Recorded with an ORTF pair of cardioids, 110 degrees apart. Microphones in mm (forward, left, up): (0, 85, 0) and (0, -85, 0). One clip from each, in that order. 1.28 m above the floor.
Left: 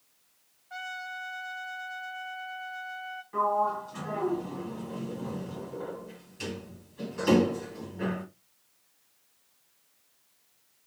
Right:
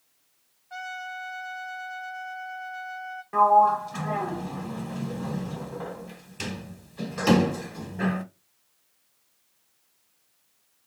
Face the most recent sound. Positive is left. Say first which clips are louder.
# right 9 dB
turn(degrees=-60)